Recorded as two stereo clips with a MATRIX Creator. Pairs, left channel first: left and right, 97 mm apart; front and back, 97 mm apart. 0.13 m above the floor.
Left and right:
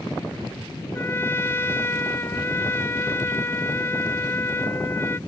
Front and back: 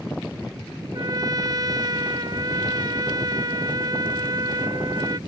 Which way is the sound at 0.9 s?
150° left.